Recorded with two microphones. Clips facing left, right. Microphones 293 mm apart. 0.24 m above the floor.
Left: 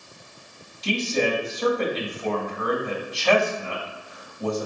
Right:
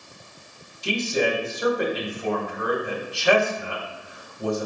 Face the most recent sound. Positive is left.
turn(degrees=-15)  # may be behind; listen again after turning